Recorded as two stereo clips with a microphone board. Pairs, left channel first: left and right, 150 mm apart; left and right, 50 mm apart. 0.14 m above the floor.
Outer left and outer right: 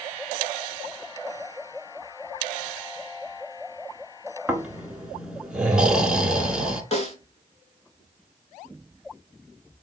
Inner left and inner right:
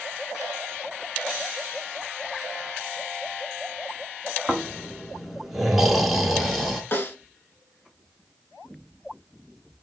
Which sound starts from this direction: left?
A snare drum, at 6.9 s.